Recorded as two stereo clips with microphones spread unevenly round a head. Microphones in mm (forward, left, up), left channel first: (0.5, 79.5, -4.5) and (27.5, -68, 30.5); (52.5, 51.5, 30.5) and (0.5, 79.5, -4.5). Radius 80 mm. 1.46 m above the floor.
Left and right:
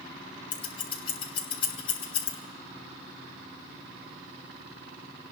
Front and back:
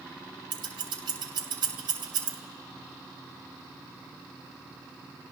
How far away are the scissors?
About 1.9 m.